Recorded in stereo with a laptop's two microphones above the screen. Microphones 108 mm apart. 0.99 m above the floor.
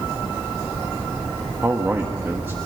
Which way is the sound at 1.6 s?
25° right (ahead or behind).